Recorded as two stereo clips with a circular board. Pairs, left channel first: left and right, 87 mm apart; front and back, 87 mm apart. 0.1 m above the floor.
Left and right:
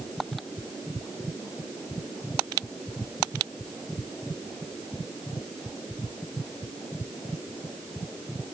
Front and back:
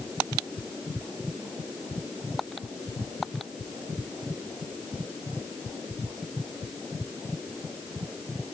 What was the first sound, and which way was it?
Only background noise.